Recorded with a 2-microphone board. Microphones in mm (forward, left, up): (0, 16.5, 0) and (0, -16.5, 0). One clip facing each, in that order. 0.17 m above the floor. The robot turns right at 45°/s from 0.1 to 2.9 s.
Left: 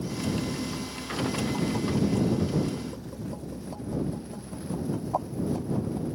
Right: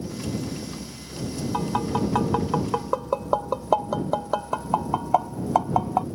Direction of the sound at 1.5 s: 40° right (ahead or behind).